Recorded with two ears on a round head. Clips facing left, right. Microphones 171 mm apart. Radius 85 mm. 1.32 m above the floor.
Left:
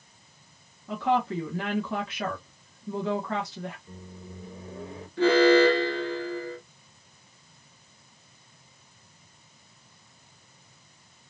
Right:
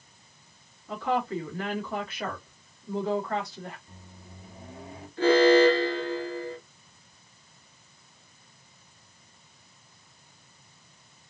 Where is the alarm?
70° left (ahead or behind), 2 m.